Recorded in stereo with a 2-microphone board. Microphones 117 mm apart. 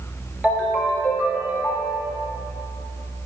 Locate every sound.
0.4 s a ringtone: 15° right (ahead or behind), 1.6 m